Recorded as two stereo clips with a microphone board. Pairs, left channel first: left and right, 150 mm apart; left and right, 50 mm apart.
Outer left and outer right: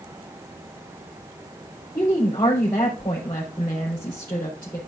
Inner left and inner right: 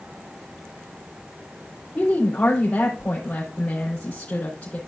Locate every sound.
1.9 s a woman speaking: 30° left (ahead or behind), 3.5 m